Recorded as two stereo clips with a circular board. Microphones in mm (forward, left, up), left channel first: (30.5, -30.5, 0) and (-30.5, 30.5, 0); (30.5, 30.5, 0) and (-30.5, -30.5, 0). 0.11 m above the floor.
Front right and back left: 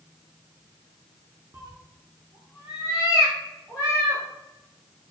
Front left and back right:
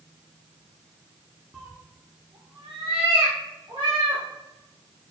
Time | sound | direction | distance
1.5 | a cat meowing | 140° left | 0.7 m